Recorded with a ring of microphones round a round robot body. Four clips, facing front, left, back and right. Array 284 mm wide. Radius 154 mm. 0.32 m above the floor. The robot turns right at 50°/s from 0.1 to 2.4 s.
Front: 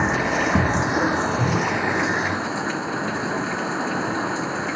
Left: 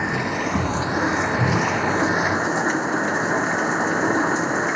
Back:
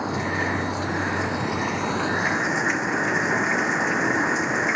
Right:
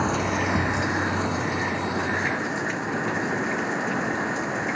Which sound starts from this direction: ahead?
Running water, at 0.0 s.